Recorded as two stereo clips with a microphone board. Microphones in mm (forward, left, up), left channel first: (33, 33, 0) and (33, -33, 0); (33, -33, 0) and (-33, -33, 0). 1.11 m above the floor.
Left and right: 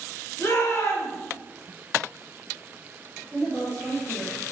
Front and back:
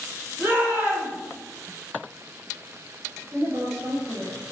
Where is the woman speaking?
170° left, 2.5 m.